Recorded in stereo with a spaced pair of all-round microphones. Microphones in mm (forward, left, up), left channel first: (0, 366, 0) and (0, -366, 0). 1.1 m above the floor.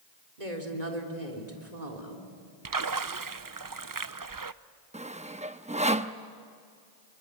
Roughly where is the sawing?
Centre.